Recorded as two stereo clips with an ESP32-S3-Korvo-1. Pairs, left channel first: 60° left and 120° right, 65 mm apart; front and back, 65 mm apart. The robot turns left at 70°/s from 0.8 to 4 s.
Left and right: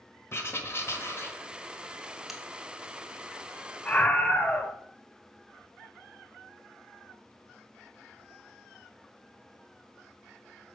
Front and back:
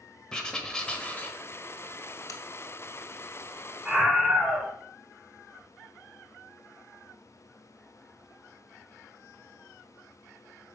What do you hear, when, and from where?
0.3 s writing: 75° left, 1.1 m; by 1.3 s 35° left, 1.1 m
2.3 s a crack: 35° right, 1.2 m; by 2.4 s 45° right, 1.2 m
3.9 s a scream: 125° left, 1.4 m; by 4.7 s 115° left, 1.4 m